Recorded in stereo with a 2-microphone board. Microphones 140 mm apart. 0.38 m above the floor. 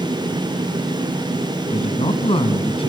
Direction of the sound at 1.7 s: 40° left (ahead or behind).